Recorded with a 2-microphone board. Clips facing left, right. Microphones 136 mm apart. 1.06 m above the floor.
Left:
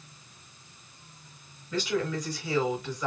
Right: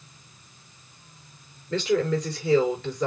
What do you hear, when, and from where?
1.7 s a woman speaking: 80° right, 4.5 m